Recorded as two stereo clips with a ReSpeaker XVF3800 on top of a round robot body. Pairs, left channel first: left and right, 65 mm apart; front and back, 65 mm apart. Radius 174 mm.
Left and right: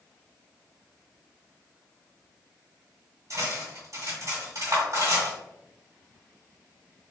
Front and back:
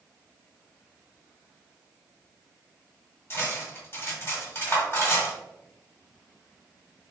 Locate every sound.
3.3 s cutlery clinking: 55° right, 1.9 m